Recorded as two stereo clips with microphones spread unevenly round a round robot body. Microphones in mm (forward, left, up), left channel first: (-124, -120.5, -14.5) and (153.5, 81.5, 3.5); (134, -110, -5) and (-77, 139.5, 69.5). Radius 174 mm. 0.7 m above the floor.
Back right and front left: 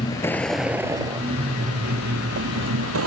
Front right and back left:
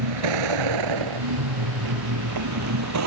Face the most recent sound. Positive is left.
turn(degrees=90)